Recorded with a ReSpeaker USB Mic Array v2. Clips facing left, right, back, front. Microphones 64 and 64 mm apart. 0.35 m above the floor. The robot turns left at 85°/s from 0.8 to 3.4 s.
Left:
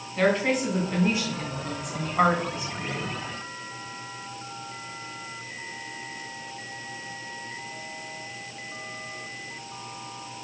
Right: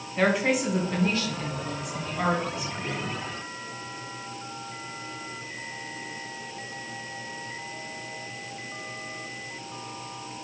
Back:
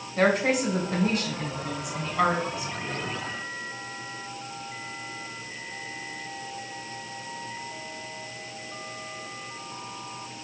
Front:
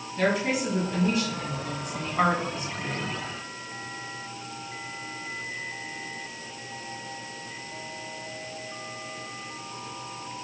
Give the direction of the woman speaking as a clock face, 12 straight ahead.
6 o'clock.